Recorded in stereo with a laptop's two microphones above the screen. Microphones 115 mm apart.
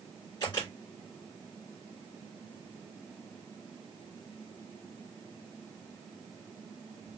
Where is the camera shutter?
40° left (ahead or behind), 3.5 m.